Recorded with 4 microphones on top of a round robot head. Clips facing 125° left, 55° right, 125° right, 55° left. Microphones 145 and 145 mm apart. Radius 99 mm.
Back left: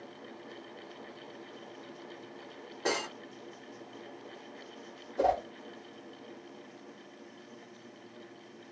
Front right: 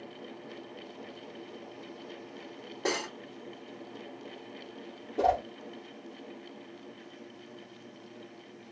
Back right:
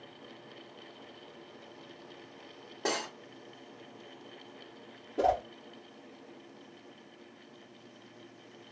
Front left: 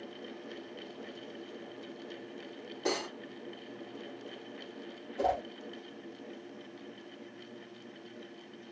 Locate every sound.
2.9 s cutlery clinking: 100° right, 1.5 m
5.2 s a whoosh: 120° right, 1.2 m